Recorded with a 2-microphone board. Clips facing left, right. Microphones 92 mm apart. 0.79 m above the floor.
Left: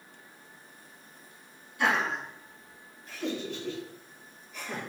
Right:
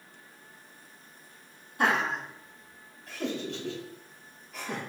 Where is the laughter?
45° right (ahead or behind), 1.3 m; by 4.8 s 75° right (ahead or behind), 3 m.